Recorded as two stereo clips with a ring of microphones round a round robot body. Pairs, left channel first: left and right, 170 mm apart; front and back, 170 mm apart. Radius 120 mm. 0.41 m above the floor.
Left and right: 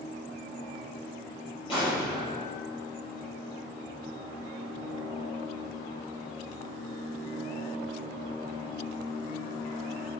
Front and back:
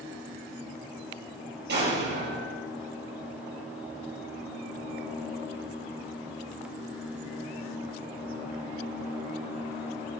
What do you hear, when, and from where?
1.7 s an explosion: 160° left, 7 m